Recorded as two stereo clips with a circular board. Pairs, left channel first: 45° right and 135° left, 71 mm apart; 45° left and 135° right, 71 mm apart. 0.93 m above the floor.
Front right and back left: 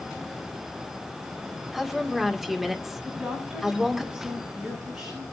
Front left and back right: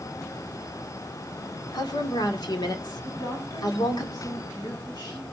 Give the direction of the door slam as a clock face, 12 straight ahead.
I don't hear a door slam.